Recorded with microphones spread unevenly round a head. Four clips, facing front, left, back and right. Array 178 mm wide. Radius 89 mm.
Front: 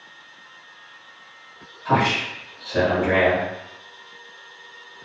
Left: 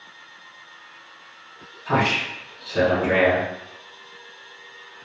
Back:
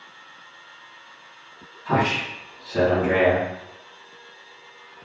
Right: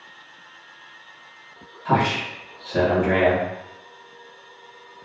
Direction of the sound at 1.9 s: 55° right.